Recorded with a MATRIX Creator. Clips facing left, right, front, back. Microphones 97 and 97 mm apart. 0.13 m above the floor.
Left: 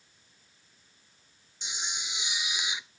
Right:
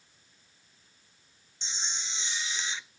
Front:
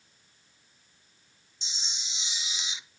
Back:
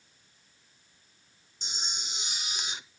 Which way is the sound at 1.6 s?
165° left.